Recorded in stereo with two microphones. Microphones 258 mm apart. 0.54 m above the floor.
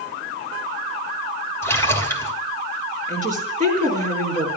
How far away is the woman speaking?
About 6.5 m.